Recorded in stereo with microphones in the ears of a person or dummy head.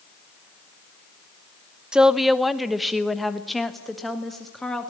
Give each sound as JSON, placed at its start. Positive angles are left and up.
{"t": 1.9, "sound": "a woman speaking", "side_deg": 0, "distance_m": 0.7}